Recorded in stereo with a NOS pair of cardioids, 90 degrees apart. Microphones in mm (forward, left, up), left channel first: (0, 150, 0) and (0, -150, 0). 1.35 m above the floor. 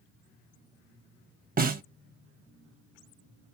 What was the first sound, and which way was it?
A snare drum, 30° right.